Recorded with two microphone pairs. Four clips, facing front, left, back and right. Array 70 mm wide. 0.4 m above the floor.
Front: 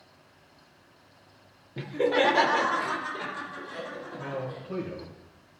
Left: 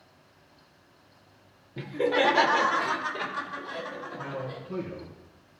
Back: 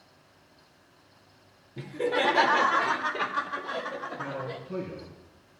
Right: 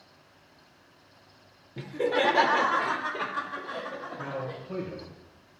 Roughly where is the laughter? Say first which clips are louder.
Left 1 dB, front 3 dB; ahead.